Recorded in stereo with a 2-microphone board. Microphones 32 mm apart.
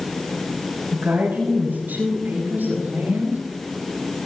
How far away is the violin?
No violin in this recording.